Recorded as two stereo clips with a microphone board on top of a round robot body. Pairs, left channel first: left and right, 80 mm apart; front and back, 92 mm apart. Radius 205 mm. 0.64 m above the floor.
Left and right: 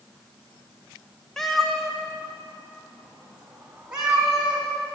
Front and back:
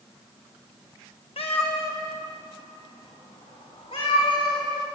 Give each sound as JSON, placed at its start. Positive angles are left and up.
{"t": 1.4, "sound": "a cat meowing", "azimuth_deg": 5, "distance_m": 1.1}